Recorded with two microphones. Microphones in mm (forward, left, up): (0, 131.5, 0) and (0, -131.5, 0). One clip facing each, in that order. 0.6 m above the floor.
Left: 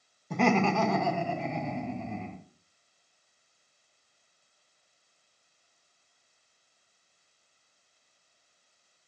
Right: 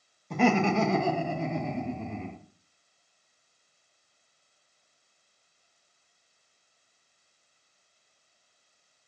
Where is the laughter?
5° left (ahead or behind), 0.6 m; by 2.4 s 60° right (ahead or behind), 1.3 m.